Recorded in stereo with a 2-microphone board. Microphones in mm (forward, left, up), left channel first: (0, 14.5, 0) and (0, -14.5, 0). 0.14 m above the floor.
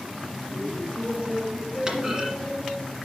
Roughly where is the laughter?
Centre.